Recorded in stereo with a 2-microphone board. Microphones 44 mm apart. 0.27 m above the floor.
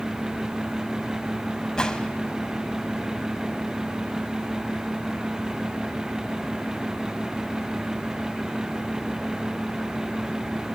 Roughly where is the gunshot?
Centre.